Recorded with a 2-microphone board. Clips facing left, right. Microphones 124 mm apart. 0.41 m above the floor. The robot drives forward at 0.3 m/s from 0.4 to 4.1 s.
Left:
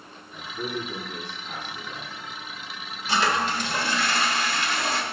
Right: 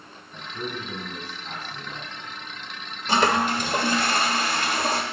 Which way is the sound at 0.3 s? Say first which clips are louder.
Left 2 dB; 40° right (ahead or behind).